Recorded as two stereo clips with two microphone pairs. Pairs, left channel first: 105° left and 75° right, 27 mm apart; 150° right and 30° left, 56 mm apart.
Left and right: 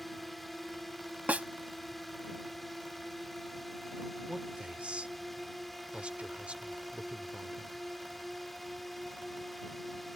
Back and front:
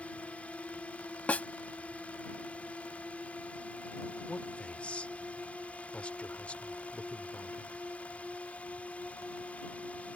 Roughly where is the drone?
Behind.